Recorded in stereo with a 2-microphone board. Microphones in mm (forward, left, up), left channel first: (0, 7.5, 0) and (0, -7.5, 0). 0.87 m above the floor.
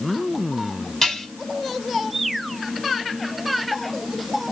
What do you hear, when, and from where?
1.0 s dishes clattering: 30° left (ahead or behind), 5 m